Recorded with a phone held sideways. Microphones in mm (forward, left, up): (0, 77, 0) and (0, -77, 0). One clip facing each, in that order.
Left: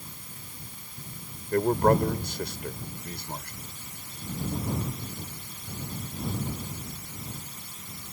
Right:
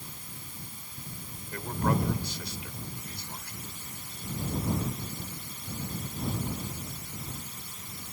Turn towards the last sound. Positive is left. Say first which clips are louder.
# left 8 dB
turn(degrees=55)  # may be behind; listen again after turning